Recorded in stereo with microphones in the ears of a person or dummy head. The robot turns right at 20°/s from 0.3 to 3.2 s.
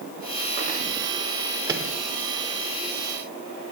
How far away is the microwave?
About 1.0 m.